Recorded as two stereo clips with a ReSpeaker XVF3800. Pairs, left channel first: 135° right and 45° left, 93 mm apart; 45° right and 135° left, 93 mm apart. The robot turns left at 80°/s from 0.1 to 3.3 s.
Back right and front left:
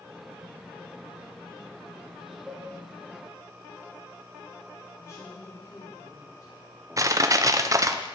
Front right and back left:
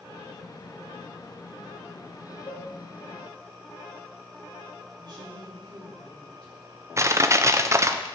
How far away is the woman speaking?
About 5 m.